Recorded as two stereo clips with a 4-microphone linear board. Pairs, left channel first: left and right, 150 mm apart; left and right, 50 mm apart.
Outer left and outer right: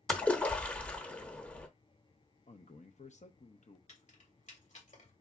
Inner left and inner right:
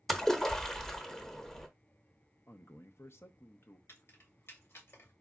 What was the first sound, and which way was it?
A splash, 10° left (ahead or behind).